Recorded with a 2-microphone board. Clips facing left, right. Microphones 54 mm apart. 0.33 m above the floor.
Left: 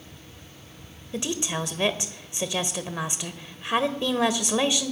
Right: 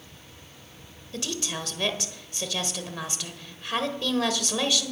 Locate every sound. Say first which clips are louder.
1.1 s a woman speaking: left 4 dB; 20° left (ahead or behind), 1.3 m